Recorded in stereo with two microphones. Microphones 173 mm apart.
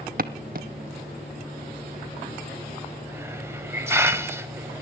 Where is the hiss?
15° right (ahead or behind), 1.0 m.